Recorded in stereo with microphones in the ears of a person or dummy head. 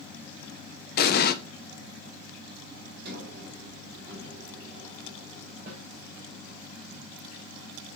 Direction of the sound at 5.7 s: 45° right (ahead or behind).